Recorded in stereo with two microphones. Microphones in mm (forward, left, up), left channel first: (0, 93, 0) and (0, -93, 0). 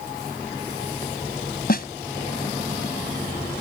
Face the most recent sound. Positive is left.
turn(degrees=55)  # may be behind; listen again after turning